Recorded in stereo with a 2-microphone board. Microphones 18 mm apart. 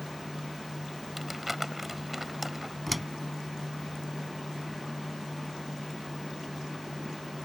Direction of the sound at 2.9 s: Centre (ahead or behind).